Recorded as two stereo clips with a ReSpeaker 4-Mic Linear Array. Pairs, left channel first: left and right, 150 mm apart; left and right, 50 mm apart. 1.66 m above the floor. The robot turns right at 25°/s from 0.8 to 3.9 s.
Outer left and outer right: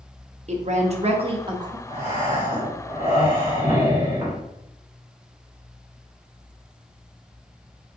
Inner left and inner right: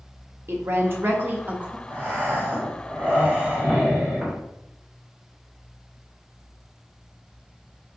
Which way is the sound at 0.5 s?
50° right (ahead or behind).